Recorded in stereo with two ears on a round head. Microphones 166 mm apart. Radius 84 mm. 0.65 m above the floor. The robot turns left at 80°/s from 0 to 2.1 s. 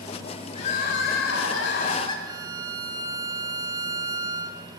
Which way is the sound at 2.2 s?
20° right (ahead or behind).